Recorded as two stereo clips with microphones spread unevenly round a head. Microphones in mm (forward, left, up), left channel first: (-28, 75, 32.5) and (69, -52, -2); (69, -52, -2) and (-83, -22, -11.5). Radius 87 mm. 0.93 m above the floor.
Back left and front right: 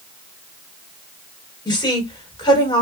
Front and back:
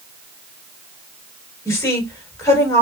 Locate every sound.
1.6 s a woman speaking: 65° left, 3 m